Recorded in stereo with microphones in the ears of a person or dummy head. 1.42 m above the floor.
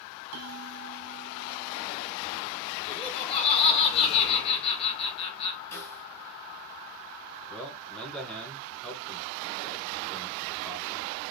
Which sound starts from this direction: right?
A bell, at 0.3 s.